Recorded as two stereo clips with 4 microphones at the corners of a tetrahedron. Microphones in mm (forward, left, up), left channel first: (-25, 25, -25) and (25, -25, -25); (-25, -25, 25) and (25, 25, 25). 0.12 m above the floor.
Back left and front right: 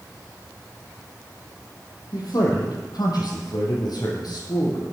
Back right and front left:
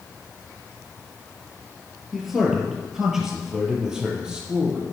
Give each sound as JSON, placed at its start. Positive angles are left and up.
{"t": 2.1, "sound": "a man speaking", "azimuth_deg": 130, "distance_m": 3.5}